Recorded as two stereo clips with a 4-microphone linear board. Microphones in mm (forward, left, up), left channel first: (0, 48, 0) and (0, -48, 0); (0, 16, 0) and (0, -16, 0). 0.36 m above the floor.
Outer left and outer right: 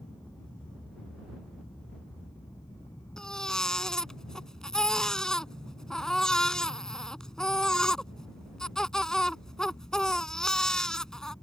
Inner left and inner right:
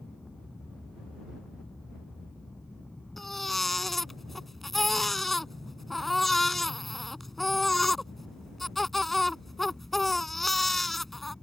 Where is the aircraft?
30° left (ahead or behind); by 11.4 s 40° left (ahead or behind).